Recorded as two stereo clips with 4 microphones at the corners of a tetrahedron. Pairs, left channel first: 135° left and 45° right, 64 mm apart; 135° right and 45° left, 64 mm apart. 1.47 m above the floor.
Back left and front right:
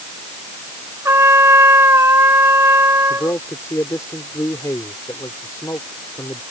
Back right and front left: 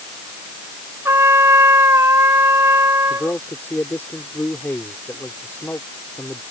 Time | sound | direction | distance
1.1 | a trumpet | 5° left | ?
3.1 | a man speaking | 170° left | ?